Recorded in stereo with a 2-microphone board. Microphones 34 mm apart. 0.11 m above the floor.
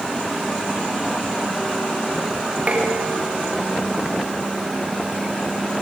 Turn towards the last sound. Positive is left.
turn(degrees=-40)  # may be behind; listen again after turning